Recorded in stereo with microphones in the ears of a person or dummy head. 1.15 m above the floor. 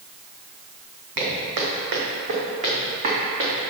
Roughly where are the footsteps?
Right.